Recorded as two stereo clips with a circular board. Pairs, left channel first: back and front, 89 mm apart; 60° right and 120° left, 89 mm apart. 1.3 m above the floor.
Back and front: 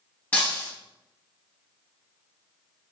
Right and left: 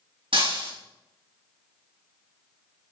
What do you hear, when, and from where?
0.3 s breaking glass: 110° left, 4.5 m